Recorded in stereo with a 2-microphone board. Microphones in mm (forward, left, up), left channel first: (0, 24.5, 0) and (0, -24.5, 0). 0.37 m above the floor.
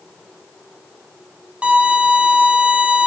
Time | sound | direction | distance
1.6 | a violin | 20° right (ahead or behind) | 1.7 m